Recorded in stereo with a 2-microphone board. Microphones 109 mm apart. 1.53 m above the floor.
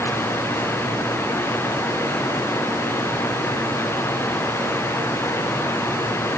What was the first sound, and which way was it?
Only background noise.